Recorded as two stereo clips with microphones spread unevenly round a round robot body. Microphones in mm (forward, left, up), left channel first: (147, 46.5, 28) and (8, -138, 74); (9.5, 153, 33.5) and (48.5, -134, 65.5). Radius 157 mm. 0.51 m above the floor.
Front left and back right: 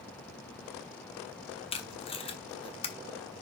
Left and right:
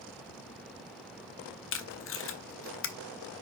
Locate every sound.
1.7 s tape being pulled: 100° left, 1.1 m